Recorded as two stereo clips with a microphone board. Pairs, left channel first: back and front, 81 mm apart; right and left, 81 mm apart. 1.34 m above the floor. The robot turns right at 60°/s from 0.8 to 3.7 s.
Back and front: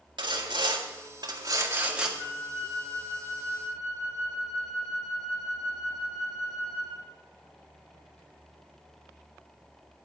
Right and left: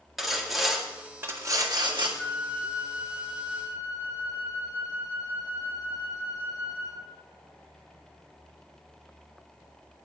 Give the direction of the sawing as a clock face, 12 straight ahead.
12 o'clock.